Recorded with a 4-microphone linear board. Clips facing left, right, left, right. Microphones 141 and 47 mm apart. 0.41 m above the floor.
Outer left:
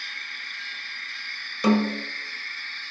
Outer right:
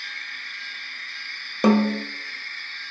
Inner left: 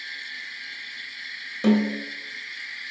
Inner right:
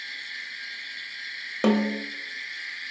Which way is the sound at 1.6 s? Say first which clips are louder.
Outer right 3 dB, inner left 2 dB; 55° right (ahead or behind).